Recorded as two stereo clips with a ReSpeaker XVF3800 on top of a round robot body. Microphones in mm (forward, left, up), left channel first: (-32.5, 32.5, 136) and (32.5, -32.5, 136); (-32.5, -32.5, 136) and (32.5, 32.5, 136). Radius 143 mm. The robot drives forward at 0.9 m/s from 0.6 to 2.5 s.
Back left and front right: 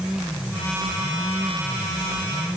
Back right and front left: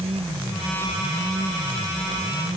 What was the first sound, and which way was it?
Only background noise.